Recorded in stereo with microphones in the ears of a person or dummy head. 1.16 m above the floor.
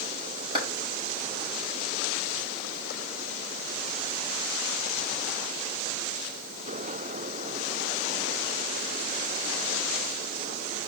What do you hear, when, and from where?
0.6 s a clap: 25° right (ahead or behind), 5.5 m